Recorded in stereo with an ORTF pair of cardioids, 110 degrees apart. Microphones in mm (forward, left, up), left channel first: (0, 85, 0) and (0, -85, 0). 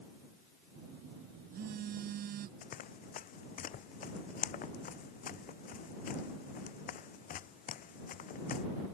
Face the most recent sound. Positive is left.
turn(degrees=55)